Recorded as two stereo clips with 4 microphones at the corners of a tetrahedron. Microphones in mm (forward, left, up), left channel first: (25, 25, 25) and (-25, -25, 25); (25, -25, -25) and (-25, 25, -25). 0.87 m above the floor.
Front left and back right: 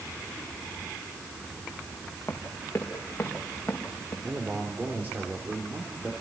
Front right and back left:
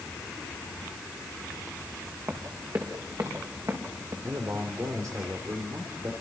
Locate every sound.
2.3 s running footsteps: 100° left, 4 m; by 4.1 s 105° left, 6 m
4.2 s a man speaking: 165° left, 3 m